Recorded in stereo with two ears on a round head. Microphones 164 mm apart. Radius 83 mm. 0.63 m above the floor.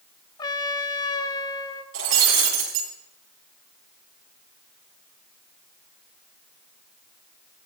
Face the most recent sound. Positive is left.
turn(degrees=-70)  # may be behind; listen again after turning